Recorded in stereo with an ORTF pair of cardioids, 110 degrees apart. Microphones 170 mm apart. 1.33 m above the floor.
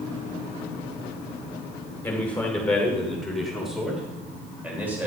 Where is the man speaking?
10° left, 4.5 m; by 5.1 s 10° right, 5.5 m.